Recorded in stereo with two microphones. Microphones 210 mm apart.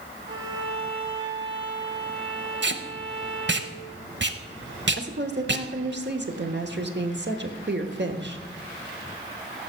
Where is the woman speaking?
55° right (ahead or behind), 1.2 m.